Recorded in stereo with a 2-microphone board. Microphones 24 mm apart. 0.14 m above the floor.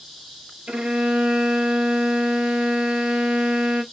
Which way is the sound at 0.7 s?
55° right (ahead or behind).